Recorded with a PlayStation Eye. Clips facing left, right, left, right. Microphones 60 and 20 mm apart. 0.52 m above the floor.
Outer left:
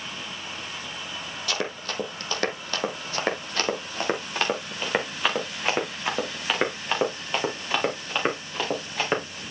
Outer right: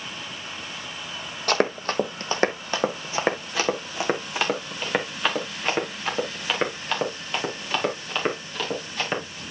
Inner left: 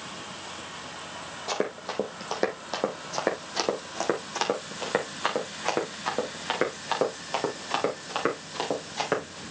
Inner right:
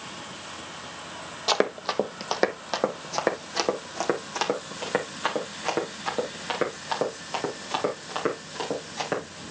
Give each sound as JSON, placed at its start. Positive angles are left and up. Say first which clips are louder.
{"t": 1.5, "sound": "running footsteps", "louder": "outer right 8 dB, inner right 6 dB", "side_deg": -45, "distance_m": 1.0}